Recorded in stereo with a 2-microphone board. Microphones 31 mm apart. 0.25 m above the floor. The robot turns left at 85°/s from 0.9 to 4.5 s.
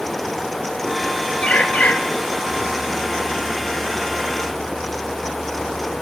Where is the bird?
130° left, 0.8 m; by 2.0 s 85° left, 0.8 m.